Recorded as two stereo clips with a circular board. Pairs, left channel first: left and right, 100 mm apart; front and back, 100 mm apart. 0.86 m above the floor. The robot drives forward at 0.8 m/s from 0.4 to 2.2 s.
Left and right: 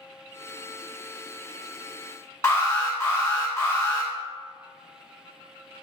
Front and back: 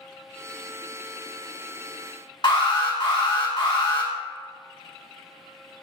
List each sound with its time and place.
2.4 s an alarm: 30° left, 1.1 m